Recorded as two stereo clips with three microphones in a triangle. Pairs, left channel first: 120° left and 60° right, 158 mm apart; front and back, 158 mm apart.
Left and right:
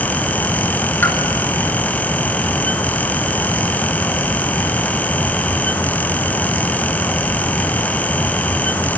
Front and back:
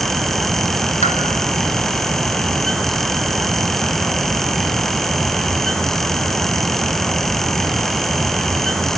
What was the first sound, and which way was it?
A pop, 40° left.